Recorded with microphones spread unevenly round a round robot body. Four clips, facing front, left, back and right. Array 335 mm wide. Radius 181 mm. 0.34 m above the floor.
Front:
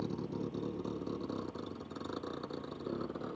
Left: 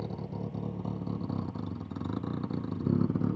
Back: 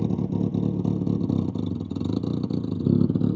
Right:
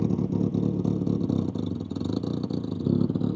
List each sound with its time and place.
0.0 s a vehicle: 145° right; by 3.4 s 170° right